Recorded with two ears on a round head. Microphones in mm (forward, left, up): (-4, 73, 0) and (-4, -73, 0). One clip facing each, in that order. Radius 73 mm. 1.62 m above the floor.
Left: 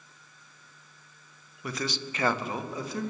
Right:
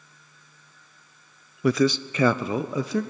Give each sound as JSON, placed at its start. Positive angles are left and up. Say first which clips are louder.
{"t": 1.6, "sound": "a man speaking", "louder": "right 13 dB", "side_deg": -55, "distance_m": 0.8}